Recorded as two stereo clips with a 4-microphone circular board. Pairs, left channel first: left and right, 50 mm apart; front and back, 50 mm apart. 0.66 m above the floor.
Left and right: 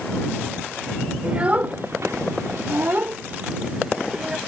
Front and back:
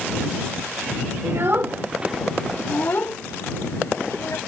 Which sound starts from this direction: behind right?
A child speaking, at 1.2 s.